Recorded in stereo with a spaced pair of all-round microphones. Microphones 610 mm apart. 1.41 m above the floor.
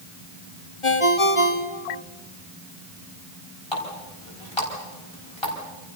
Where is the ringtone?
50° left (ahead or behind), 1.9 m.